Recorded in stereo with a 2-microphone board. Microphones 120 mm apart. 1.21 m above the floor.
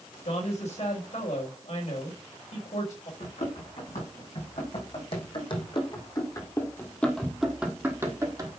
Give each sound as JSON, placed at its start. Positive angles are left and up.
{"t": 0.2, "sound": "a woman speaking", "side_deg": 85, "distance_m": 4.0}
{"t": 3.2, "sound": "running footsteps", "side_deg": 70, "distance_m": 4.5}